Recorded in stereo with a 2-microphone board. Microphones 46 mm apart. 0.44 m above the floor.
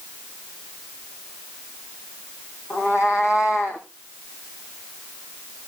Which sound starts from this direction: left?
A cat meowing, at 2.7 s.